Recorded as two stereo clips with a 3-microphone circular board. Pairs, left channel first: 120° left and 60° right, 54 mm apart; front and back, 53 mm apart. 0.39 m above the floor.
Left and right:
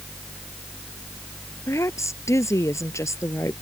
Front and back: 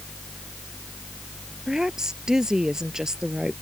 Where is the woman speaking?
100° left.